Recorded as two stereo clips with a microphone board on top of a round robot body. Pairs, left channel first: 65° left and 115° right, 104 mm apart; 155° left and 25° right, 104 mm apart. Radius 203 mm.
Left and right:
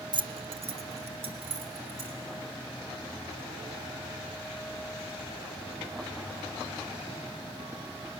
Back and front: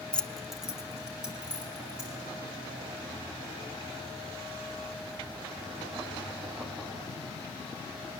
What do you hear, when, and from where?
0.1 s keys jangling: 125° right, 0.6 m; by 2.2 s 100° right, 3.5 m